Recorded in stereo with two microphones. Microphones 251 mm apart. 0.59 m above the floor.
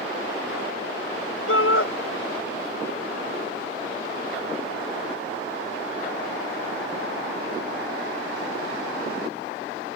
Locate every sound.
1.5 s a shout: 65° left (ahead or behind)